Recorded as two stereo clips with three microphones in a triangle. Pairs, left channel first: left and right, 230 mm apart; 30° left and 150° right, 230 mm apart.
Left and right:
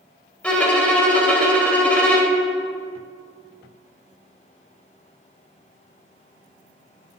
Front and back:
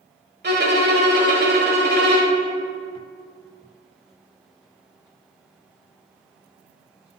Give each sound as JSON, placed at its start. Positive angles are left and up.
{"t": 0.4, "sound": "a violin", "azimuth_deg": 175, "distance_m": 1.2}